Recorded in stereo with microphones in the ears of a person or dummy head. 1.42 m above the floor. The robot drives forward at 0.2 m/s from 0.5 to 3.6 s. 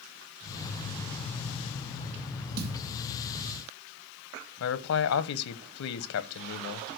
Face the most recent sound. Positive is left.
turn(degrees=75)  # may be behind; listen again after turning